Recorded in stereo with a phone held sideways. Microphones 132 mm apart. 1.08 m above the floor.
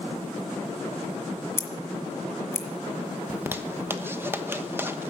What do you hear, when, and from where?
1.6 s scissors: 20° left (ahead or behind), 1.7 m
3.3 s a zipper: 15° right (ahead or behind), 1.0 m